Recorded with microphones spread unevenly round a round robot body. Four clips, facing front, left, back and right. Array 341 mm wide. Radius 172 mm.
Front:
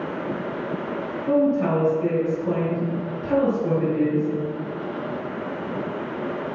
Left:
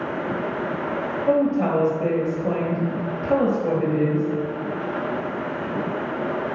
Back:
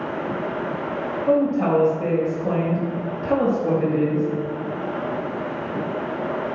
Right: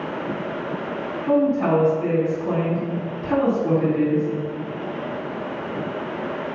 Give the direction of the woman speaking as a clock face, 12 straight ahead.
7 o'clock.